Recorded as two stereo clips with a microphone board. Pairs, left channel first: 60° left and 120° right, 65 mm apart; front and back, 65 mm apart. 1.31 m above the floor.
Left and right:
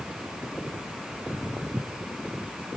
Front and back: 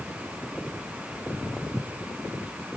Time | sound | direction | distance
1.1 | footsteps | 95° right | ?